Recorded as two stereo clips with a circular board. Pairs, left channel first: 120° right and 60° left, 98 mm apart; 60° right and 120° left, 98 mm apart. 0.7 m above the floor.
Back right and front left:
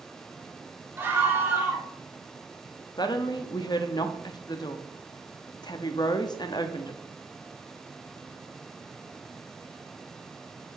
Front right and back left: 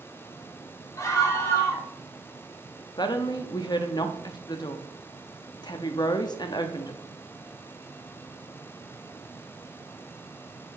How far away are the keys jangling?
I don't hear keys jangling.